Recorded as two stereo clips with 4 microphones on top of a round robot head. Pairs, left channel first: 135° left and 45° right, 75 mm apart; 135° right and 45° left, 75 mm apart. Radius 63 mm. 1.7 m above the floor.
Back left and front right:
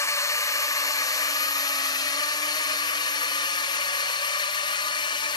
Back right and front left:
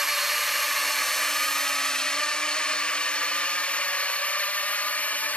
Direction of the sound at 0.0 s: 130° left.